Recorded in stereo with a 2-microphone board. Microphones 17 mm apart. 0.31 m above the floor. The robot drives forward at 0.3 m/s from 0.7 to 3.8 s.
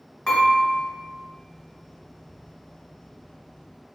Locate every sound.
0.3 s dishes clattering: 45° left (ahead or behind), 1.7 m